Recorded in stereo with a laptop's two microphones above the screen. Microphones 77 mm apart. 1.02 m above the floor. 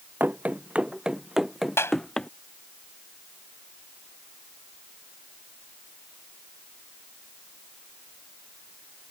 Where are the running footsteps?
20° right (ahead or behind); by 2.3 s 10° left (ahead or behind).